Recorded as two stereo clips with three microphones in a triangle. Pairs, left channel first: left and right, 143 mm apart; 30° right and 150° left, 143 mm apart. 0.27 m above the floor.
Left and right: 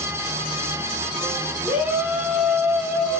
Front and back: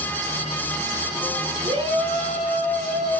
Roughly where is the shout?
Behind.